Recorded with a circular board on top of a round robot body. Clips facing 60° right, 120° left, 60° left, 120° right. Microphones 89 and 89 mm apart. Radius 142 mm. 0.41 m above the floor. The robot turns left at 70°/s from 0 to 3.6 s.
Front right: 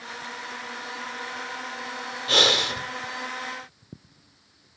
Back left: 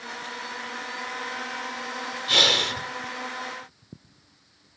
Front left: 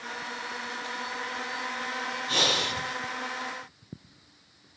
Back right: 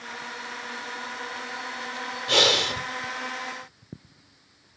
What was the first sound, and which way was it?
Breathing, 110° right.